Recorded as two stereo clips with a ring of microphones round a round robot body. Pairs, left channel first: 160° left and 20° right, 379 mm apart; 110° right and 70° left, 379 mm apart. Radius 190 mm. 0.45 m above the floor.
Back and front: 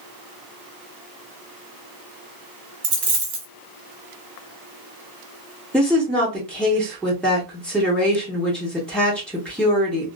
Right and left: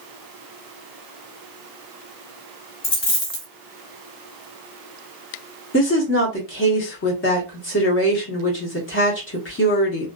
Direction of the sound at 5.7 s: 115° right.